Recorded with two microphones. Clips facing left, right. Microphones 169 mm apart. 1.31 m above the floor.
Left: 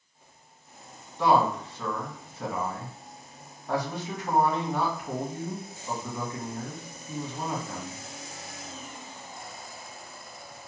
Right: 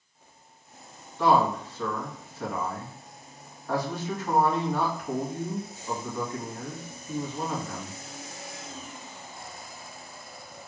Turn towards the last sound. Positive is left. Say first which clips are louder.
# even
turn(degrees=15)  # may be behind; listen again after turning